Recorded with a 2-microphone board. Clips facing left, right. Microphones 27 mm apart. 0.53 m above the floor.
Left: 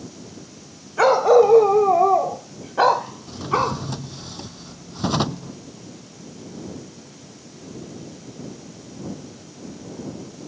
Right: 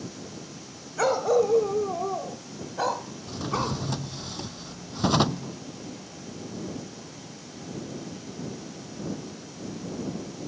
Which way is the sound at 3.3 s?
Centre (ahead or behind).